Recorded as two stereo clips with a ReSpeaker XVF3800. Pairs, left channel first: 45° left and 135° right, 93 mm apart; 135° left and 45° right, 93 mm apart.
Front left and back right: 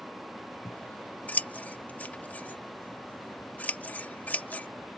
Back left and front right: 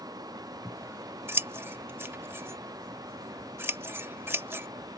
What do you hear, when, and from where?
0.7 s scissors: 10° right